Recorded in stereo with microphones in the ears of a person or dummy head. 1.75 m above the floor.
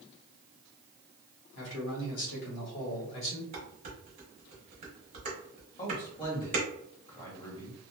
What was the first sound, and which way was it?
A man speaking, 75° left (ahead or behind).